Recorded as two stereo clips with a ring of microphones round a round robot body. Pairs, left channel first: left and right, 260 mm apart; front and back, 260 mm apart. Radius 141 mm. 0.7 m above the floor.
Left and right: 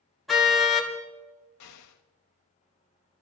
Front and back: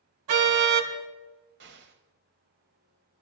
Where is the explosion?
125° left, 1.2 m.